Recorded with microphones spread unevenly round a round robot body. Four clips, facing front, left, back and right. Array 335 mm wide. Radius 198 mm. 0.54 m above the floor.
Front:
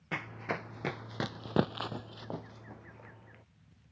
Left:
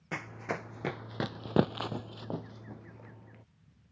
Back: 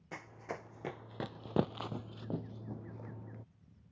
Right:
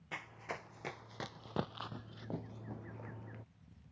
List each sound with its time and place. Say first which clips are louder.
0.1 s running footsteps: left 8 dB, front 7 dB; 50° left; by 3.4 s 170° right